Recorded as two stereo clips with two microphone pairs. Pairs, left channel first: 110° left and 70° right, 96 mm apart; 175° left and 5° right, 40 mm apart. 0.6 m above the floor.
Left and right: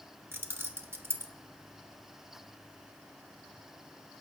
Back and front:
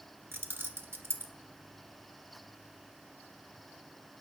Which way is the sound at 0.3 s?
10° right.